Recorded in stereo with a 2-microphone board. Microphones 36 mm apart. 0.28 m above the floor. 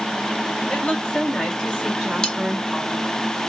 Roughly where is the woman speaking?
Left.